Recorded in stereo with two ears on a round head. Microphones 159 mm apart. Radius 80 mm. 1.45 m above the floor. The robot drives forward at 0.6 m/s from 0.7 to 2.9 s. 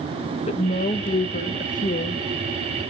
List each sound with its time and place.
0.5 s a woman speaking: 35° left (ahead or behind), 2 m; by 2.2 s 55° left (ahead or behind), 1.4 m